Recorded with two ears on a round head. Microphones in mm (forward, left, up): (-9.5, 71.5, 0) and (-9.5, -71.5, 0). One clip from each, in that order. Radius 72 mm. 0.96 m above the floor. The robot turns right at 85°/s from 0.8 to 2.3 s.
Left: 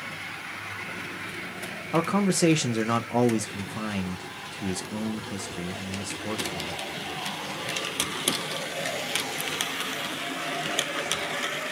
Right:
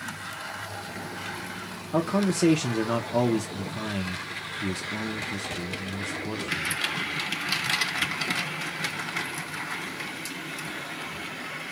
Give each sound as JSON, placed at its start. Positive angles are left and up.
{"t": 1.9, "sound": "a man speaking", "azimuth_deg": 100, "distance_m": 0.6}